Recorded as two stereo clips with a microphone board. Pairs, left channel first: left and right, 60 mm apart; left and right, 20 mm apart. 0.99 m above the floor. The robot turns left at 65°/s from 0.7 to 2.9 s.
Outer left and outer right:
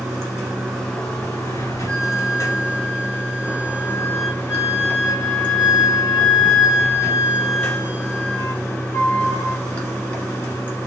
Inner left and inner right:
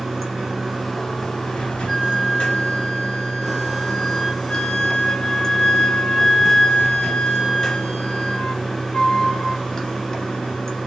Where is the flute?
140° left, 1.0 m; by 9.6 s 70° left, 1.0 m.